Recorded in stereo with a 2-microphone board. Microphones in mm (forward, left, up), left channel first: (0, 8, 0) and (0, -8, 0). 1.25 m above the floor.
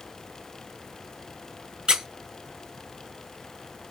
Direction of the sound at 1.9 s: 60° right (ahead or behind).